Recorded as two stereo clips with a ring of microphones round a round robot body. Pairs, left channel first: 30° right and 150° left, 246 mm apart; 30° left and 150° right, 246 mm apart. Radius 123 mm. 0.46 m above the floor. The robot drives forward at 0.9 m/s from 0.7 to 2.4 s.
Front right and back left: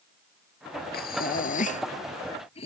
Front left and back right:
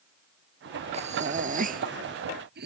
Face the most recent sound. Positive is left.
turn(degrees=-100)